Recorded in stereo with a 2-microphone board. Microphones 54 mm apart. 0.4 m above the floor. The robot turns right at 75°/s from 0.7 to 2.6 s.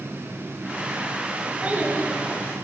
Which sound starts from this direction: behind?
A child speaking, at 1.6 s.